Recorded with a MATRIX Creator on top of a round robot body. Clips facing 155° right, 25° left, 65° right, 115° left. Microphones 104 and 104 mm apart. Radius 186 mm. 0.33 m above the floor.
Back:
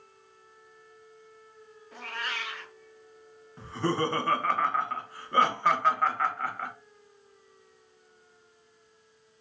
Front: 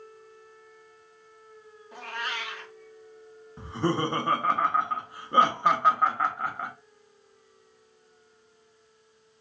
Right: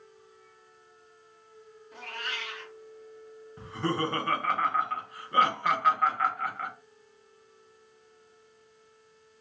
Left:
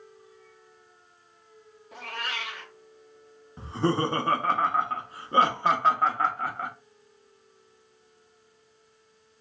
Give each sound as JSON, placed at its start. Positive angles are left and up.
{"t": 1.9, "sound": "a cat meowing", "azimuth_deg": 95, "distance_m": 1.0}
{"t": 3.6, "sound": "laughter", "azimuth_deg": 85, "distance_m": 0.9}